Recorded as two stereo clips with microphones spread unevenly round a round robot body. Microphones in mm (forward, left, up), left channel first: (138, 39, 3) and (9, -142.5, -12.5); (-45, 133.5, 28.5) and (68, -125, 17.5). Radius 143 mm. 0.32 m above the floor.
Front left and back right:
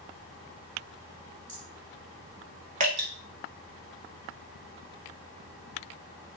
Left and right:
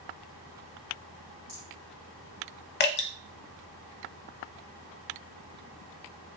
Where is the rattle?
75° right, 2.5 m.